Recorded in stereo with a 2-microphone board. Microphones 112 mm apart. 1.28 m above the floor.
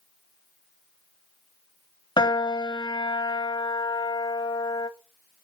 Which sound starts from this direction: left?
A piano, at 2.2 s.